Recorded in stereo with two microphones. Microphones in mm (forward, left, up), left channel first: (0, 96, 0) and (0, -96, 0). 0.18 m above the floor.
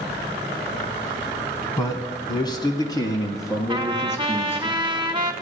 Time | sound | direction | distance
1.8 | a man speaking | 20° left (ahead or behind) | 1.2 m
3.7 | a trumpet | 25° right (ahead or behind) | 0.7 m